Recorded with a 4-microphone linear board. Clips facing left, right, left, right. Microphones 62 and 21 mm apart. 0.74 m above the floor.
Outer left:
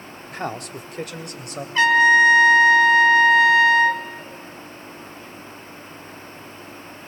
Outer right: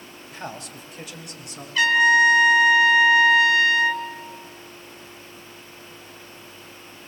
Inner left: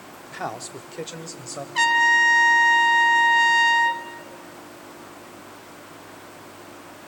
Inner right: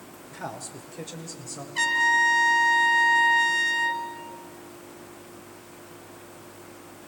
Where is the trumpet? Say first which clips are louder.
Outer left 2 dB, inner left 4 dB; 35° left (ahead or behind), 1.6 m.